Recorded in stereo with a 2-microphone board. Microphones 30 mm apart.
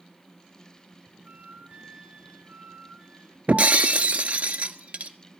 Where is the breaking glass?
65° right (ahead or behind), 0.7 m.